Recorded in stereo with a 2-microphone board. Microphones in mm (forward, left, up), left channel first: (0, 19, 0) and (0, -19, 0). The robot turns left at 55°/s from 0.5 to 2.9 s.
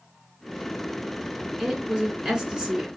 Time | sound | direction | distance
1.6 | a woman speaking | 15° right (ahead or behind) | 1.3 m